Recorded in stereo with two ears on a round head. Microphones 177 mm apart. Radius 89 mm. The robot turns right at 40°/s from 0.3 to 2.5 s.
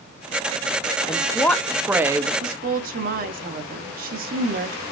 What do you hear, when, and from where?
1.1 s a woman speaking: 155° left, 0.6 m; by 2.3 s 155° right, 0.6 m
2.4 s a woman speaking: 45° right (ahead or behind), 0.9 m